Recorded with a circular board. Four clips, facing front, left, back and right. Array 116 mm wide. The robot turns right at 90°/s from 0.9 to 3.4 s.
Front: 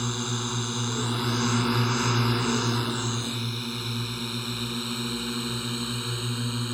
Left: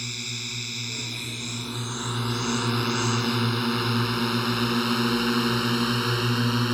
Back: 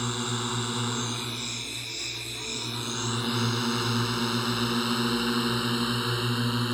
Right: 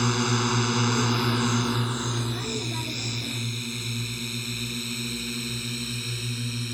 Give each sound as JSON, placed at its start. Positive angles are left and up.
{"t": 0.0, "sound": "a drone", "azimuth_deg": -95}